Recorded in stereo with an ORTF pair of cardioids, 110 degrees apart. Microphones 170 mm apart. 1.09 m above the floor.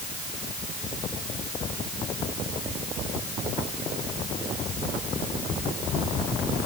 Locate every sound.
Only background noise.